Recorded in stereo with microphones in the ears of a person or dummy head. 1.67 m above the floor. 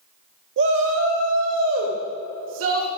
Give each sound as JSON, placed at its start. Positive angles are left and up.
{"t": 0.6, "sound": "a shout", "side_deg": -75, "distance_m": 0.9}